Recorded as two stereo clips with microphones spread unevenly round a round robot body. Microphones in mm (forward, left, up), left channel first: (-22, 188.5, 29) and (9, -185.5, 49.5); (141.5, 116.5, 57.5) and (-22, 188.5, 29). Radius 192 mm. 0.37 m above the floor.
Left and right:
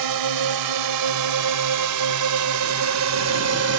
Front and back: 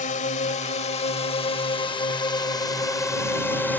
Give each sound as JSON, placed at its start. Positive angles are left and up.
{"t": 0.0, "sound": "a drone", "azimuth_deg": -80}